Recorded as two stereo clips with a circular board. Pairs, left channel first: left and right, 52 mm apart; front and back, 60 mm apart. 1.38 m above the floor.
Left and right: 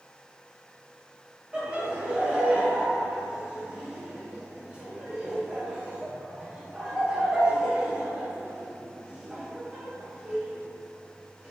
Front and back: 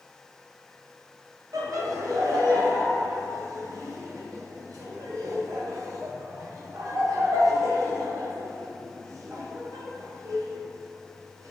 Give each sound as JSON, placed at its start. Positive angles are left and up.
{"t": 1.5, "sound": "laughter", "azimuth_deg": -160, "distance_m": 0.6}